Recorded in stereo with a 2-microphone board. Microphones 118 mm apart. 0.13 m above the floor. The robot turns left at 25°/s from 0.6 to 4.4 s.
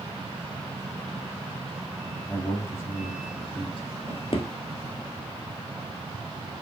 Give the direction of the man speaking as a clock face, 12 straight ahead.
6 o'clock.